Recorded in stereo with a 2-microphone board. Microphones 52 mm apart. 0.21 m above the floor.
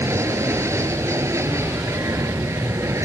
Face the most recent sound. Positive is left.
turn(degrees=-70)  # may be behind; listen again after turning